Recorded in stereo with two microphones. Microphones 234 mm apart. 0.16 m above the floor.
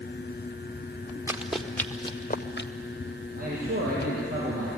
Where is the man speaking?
35° right (ahead or behind), 5.5 m.